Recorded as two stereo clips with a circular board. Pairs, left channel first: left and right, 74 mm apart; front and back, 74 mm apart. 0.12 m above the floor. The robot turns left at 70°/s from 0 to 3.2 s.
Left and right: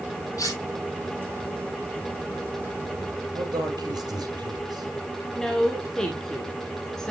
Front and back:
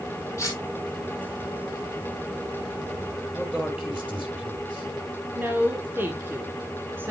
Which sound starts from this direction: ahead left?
Cutlery clinking, at 0.4 s.